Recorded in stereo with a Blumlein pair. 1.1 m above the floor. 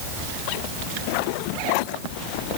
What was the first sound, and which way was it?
Only background noise.